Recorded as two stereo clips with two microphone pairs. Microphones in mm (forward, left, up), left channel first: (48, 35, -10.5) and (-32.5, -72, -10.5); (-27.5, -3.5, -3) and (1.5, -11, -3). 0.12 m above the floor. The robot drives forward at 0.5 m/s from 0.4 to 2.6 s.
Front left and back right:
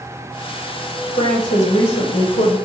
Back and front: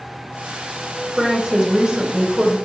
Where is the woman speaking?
45° left, 4.5 m; by 2.6 s 50° left, 4 m.